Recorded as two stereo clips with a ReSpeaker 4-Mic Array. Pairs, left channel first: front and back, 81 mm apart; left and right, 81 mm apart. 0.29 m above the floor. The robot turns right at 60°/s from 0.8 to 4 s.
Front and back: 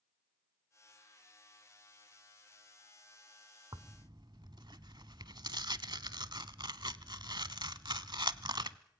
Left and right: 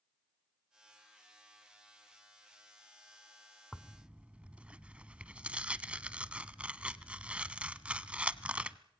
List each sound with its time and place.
3.7 s tearing paper: straight behind, 0.7 m; by 8.8 s 165° right, 0.7 m